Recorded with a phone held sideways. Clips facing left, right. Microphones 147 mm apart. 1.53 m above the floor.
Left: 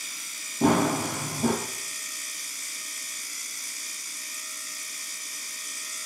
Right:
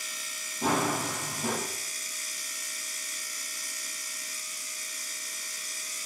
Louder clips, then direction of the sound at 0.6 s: Left 6 dB; 60° left (ahead or behind).